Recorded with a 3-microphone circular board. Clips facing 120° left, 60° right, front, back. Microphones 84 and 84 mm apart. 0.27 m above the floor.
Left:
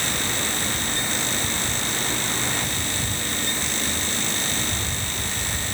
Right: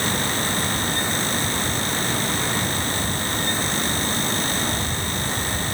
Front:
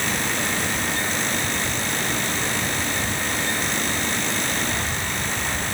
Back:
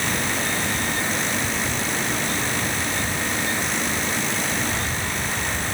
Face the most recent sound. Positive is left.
No sound to turn to.